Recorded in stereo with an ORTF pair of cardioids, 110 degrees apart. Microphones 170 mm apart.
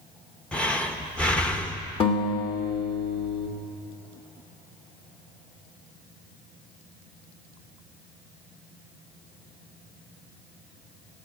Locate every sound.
0.5 s breathing: 5° left, 1.1 m
2.0 s a guitar: 35° left, 2 m